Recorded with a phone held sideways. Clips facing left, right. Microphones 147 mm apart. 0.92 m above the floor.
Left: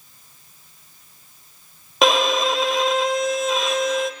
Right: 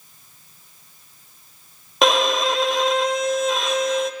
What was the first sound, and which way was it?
A violin, centre (ahead or behind).